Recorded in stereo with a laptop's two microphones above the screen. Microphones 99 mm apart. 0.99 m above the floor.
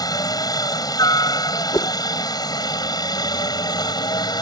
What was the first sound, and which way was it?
A helicopter, 40° left (ahead or behind).